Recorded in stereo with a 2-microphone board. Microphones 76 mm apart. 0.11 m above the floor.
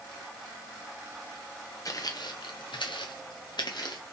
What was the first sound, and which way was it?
Footsteps, 45° left (ahead or behind).